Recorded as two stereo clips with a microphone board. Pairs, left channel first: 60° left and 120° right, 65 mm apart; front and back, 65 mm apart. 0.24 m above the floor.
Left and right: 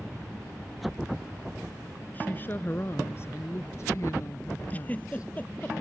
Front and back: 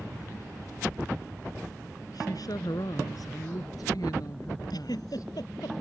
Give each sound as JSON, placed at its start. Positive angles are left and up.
{"t": 2.1, "sound": "a woman speaking", "azimuth_deg": 0}
{"t": 4.7, "sound": "a giggle", "azimuth_deg": -5}